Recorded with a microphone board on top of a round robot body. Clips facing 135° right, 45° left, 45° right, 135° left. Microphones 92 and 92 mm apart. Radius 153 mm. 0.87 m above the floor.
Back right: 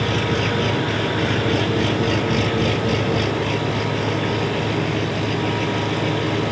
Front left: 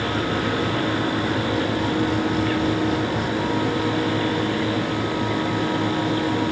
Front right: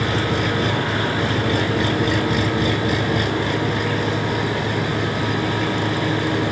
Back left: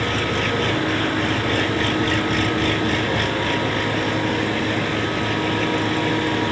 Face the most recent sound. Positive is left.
turn(degrees=-120)